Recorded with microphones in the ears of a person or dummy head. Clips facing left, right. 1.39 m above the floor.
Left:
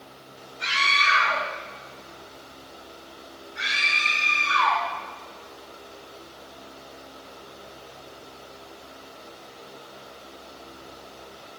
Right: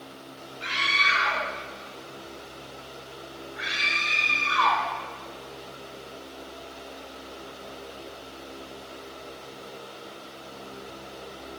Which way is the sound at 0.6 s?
80° left.